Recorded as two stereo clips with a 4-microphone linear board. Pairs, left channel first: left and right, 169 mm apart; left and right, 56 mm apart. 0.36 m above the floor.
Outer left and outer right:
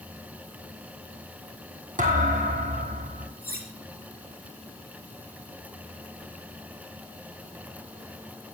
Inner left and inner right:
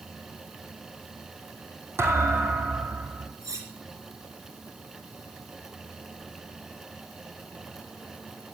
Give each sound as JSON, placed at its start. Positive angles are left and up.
{"t": 2.0, "sound": "a thud", "side_deg": -50, "distance_m": 3.0}
{"t": 3.4, "sound": "cutlery clinking", "side_deg": -70, "distance_m": 4.5}